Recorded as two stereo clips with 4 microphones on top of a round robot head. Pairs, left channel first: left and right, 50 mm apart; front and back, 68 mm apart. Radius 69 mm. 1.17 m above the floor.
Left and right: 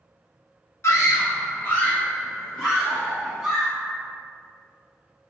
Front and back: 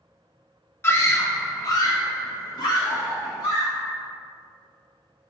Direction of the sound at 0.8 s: 55° left.